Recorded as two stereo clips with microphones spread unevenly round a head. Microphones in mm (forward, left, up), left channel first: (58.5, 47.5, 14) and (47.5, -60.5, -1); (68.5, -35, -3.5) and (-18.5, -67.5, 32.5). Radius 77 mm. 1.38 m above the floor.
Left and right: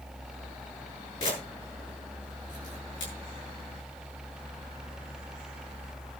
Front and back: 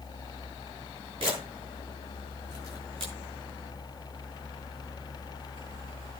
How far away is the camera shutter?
About 7.5 m.